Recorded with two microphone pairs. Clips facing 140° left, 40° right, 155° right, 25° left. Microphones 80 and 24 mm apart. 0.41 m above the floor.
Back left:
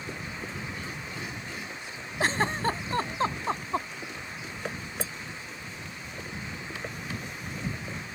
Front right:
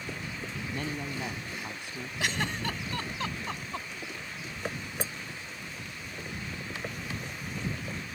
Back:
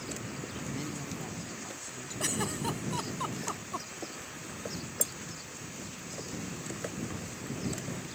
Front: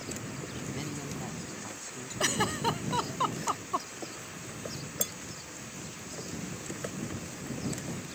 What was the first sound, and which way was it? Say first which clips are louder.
A man speaking: front right 3 dB, front 1 dB; 60° right.